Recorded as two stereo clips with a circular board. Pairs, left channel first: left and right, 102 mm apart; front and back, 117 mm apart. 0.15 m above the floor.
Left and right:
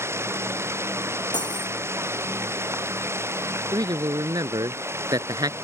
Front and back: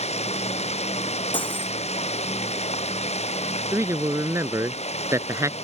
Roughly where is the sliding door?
I don't hear a sliding door.